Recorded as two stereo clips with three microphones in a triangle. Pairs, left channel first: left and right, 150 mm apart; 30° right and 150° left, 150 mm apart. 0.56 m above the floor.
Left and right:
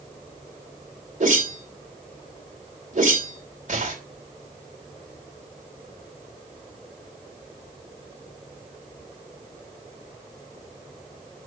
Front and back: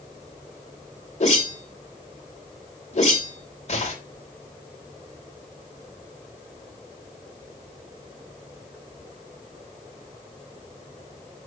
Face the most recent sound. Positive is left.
turn(degrees=-65)